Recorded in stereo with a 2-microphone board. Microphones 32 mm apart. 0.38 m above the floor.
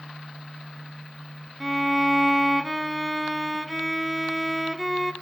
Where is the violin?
5° right (ahead or behind), 0.5 m.